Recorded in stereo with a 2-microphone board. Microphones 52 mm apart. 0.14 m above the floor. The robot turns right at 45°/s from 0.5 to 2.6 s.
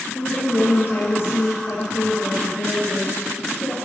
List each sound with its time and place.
0.1 s a woman speaking: 30° left, 3 m; by 3.8 s 125° left, 3 m